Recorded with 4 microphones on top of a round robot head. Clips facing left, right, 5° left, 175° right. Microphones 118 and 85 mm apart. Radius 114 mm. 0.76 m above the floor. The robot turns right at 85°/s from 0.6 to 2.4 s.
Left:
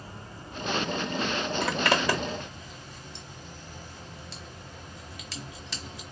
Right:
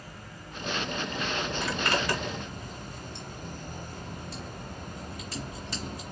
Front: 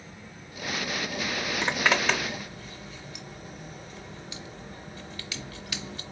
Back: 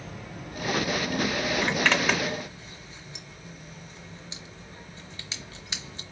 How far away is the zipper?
About 0.6 m.